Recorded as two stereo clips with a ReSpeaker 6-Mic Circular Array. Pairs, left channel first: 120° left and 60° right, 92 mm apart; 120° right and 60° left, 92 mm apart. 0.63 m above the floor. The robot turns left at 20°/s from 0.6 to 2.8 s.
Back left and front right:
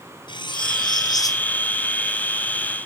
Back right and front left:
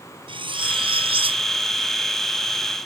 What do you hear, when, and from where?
0.3 s cutlery clinking: 85° left; by 1.4 s 65° left